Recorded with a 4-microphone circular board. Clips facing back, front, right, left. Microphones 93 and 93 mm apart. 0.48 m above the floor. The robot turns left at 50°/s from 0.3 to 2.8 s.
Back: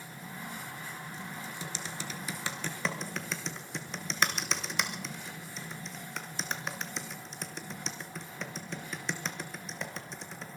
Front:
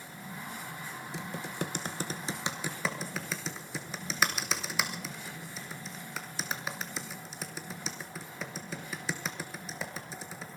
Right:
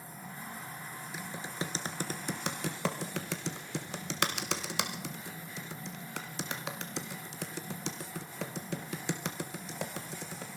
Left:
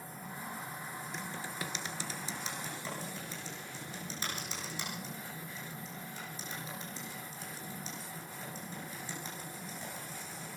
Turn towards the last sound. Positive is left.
turn(degrees=-90)